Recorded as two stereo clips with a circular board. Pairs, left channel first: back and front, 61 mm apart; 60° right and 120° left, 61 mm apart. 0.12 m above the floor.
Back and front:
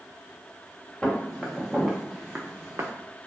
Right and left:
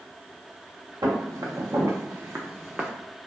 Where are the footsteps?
105° left, 1.2 m; by 2.9 s 40° left, 0.6 m.